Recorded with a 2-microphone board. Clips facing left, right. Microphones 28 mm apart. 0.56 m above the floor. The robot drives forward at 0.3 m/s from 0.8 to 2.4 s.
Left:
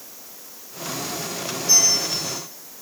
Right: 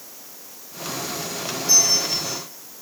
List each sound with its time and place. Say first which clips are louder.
1.7 s a bell: even; 5° right (ahead or behind), 8 m